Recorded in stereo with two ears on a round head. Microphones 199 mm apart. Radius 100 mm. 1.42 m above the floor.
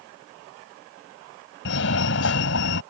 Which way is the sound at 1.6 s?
55° left (ahead or behind).